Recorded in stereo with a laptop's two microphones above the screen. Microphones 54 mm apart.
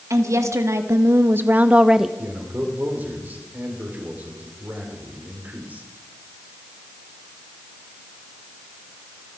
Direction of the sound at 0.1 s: 70° right (ahead or behind).